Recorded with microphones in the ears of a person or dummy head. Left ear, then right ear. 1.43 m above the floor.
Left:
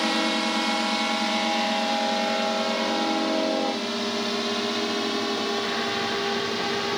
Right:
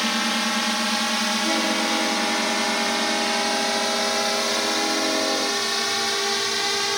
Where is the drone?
35° right (ahead or behind); by 7.0 s 70° right (ahead or behind).